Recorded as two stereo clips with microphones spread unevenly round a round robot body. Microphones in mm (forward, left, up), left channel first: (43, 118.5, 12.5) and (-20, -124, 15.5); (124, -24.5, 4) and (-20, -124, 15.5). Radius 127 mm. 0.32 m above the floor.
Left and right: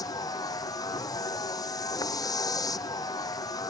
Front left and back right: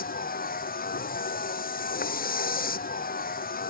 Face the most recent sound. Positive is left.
turn(degrees=0)